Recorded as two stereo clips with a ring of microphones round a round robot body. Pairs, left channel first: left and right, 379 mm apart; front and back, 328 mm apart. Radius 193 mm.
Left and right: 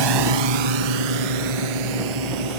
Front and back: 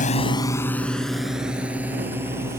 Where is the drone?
70° right; by 2.6 s 95° right.